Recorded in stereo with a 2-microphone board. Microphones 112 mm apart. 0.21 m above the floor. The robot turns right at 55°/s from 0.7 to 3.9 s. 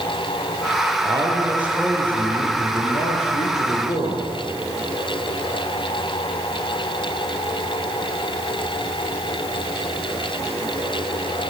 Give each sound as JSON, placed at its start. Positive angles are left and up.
{"t": 1.0, "sound": "a man speaking", "azimuth_deg": -50, "distance_m": 6.0}